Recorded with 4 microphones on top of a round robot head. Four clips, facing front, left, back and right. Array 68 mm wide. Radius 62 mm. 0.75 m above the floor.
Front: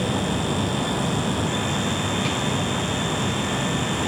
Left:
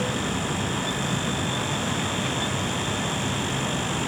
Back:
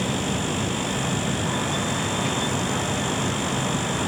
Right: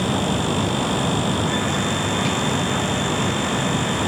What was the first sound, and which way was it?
Only background noise.